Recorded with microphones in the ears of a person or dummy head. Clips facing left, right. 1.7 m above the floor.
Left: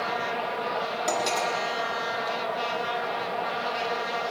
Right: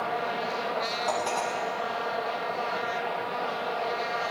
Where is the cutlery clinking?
30° left (ahead or behind), 1.8 m.